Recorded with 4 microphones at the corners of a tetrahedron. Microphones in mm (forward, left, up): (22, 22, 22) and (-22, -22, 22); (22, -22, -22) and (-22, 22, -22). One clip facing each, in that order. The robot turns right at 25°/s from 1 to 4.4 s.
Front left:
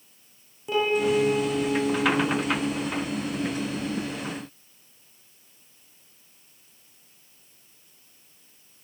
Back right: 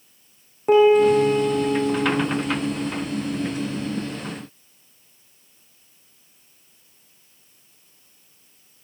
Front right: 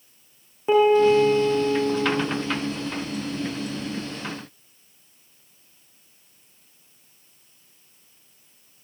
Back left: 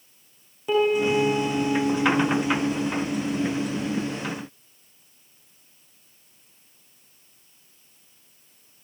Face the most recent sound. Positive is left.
turn(degrees=-20)